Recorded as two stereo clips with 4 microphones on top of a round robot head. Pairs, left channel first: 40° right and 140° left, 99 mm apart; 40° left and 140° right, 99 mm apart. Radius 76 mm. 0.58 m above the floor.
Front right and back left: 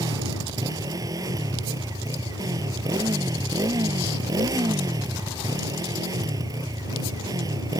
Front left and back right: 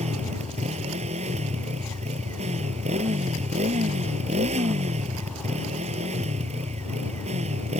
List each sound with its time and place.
0.0 s a motorcycle: 160° right